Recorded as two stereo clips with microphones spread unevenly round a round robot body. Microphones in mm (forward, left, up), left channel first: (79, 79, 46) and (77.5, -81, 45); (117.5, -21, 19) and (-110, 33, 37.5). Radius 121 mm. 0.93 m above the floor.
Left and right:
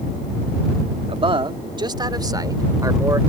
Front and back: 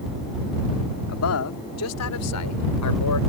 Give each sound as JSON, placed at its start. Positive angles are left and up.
{"t": 1.1, "sound": "a man speaking", "azimuth_deg": -35}